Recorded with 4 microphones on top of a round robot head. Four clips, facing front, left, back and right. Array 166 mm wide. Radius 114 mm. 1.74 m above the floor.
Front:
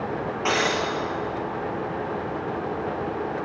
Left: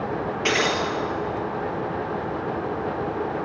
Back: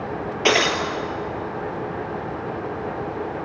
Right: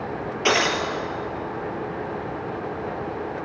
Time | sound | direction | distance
0.5 | breaking glass | 170° right | 2.5 m